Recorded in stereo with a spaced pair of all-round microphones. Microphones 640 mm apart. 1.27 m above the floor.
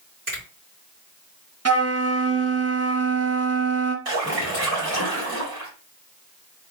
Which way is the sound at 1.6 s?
25° right (ahead or behind).